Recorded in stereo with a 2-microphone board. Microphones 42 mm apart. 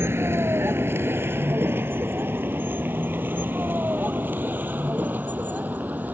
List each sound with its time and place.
0.0 s a vehicle: 75° right (ahead or behind); by 6.2 s 45° right (ahead or behind)